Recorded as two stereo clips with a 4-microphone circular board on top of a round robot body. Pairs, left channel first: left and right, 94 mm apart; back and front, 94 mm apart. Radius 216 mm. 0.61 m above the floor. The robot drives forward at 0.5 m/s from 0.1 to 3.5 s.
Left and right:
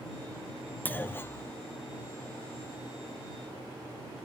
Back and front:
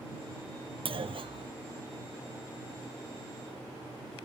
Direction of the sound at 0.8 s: 20° left.